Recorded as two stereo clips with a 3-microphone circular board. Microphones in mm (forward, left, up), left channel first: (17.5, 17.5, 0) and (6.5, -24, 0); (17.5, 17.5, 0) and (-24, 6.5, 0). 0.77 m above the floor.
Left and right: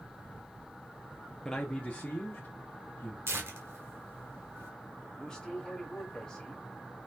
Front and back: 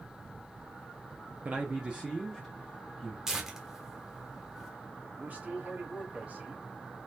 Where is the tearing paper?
85° right, 1.0 m.